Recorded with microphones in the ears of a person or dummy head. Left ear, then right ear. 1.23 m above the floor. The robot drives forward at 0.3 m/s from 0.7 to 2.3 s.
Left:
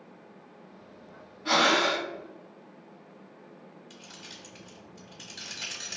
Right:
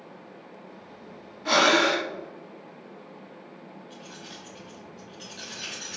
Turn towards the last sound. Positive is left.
turn(degrees=30)  # may be behind; listen again after turning